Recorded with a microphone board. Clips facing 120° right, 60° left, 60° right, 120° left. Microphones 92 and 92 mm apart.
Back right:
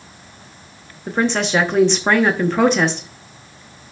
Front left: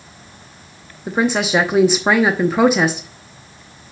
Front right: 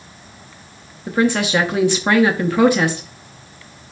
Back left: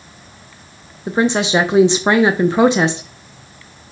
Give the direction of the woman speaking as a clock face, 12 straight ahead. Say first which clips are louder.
Front left 1 dB, back left 1 dB; 8 o'clock.